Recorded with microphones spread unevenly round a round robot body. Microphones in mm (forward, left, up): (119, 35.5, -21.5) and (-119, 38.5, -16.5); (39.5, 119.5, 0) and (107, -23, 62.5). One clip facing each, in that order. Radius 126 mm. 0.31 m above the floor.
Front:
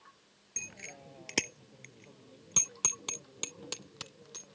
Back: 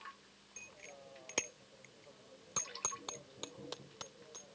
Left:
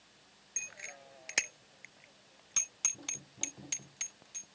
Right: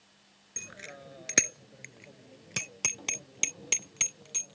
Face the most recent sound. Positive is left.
turn(degrees=-65)